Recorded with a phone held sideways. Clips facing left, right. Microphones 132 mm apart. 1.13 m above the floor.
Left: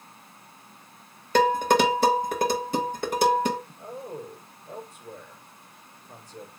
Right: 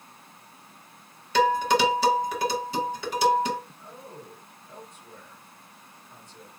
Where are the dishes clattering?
50° left (ahead or behind), 1.3 m.